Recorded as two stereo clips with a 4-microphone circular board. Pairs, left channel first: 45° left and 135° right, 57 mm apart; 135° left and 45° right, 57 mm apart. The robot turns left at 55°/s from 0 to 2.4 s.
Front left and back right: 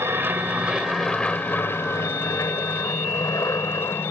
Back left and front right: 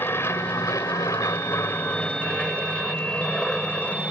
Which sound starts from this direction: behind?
An aircraft, at 0.0 s.